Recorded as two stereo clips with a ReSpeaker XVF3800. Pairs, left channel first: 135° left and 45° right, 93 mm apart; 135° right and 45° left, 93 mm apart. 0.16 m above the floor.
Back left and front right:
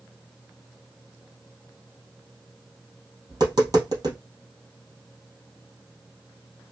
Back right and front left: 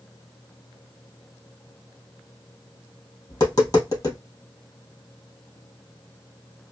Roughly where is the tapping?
Right.